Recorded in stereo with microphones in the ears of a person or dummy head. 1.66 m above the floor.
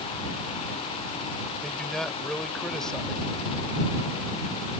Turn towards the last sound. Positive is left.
turn(degrees=5)  # may be behind; listen again after turning